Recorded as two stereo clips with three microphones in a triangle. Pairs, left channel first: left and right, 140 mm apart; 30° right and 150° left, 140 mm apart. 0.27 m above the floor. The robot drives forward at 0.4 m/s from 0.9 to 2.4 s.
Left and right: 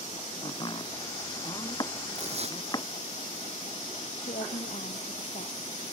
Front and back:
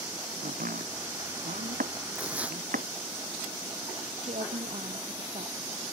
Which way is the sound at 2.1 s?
130° right.